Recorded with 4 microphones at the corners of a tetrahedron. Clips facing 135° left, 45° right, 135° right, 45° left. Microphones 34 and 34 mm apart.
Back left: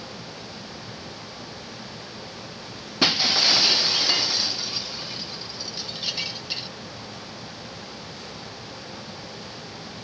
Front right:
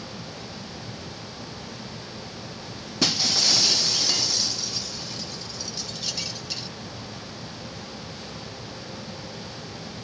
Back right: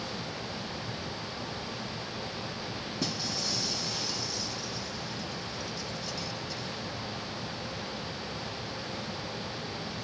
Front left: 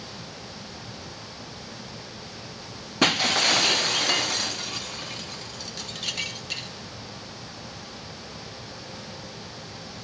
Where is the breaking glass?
75° left.